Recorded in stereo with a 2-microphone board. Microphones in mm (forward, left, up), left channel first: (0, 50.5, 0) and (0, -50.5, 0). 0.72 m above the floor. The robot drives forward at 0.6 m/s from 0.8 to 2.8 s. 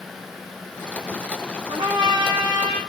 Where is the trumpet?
60° right (ahead or behind), 1.0 m; by 2.8 s 40° right (ahead or behind), 1.4 m.